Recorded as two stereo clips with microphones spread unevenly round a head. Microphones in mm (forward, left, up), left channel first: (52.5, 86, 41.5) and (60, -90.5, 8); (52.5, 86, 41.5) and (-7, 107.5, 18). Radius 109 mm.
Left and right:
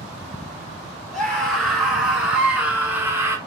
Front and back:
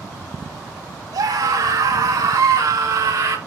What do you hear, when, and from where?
1.1 s a scream: straight behind, 4.5 m; by 3.4 s 165° right, 3 m